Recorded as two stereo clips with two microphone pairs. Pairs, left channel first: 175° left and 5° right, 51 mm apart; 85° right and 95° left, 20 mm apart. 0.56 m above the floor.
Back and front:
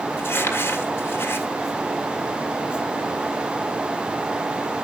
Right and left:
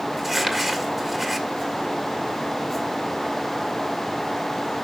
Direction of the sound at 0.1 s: 175° left.